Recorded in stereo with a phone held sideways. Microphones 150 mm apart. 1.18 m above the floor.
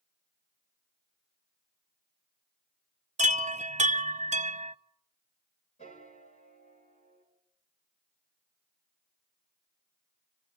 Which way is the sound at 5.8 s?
45° left (ahead or behind).